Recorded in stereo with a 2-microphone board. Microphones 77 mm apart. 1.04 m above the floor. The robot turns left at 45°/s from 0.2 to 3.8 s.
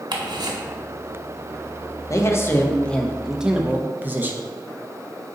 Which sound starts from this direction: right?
Ticking, at 0.1 s.